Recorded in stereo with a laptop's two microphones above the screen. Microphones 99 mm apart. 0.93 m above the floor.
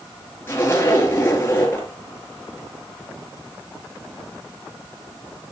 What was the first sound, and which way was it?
A zipper, 25° left (ahead or behind).